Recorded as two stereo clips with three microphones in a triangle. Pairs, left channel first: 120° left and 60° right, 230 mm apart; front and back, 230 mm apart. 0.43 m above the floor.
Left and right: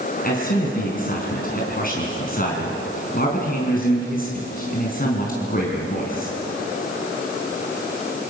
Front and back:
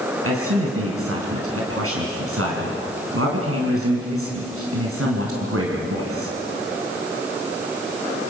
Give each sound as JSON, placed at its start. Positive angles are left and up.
{"t": 0.2, "sound": "a man speaking", "azimuth_deg": 170, "distance_m": 4.5}